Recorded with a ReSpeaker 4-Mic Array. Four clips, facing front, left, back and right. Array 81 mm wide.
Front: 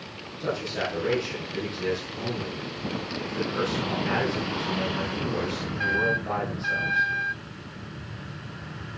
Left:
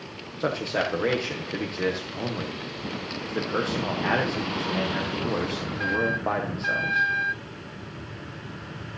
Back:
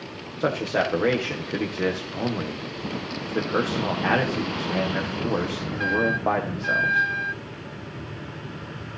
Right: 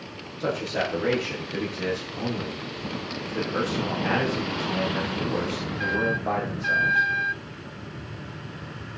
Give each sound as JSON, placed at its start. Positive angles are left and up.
{"t": 0.4, "sound": "a man speaking", "azimuth_deg": 160, "distance_m": 5.0}